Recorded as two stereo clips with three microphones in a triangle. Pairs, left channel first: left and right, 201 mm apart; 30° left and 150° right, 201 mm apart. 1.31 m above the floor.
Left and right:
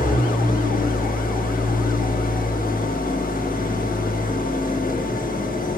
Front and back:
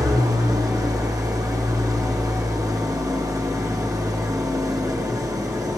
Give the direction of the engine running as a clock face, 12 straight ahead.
7 o'clock.